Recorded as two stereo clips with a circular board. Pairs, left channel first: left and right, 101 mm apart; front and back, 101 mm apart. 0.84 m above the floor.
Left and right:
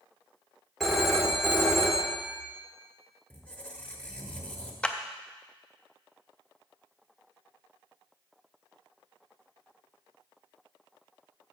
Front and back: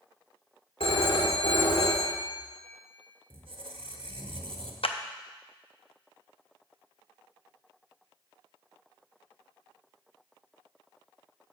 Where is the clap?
10° left, 0.6 m.